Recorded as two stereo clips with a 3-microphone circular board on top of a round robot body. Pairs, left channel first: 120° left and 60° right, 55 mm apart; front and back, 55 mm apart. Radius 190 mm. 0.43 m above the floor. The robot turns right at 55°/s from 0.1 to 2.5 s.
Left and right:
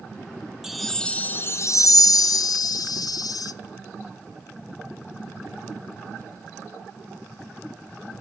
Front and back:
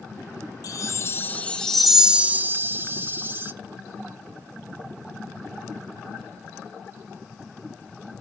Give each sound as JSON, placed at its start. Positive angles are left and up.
{"t": 0.6, "sound": "a chime", "azimuth_deg": 25, "distance_m": 0.5}